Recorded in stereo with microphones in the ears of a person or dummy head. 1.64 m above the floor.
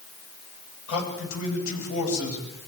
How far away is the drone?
I don't hear a drone.